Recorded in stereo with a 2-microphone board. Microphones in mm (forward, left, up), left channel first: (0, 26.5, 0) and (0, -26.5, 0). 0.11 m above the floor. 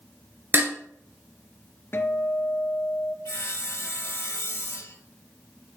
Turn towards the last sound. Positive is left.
turn(degrees=55)  # may be behind; listen again after turning